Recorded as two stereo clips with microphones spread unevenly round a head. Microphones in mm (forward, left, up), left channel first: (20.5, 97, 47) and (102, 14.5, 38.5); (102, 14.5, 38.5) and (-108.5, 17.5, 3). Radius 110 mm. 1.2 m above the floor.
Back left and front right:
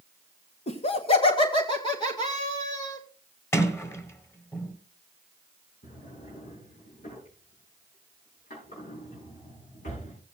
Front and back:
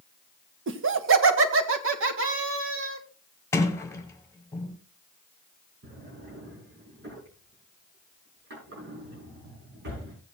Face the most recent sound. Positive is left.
turn(degrees=140)